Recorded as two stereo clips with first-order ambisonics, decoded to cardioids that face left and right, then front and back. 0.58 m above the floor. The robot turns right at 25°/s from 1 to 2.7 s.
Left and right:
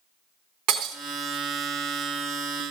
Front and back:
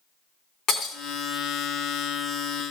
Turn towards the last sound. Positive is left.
turn(degrees=-10)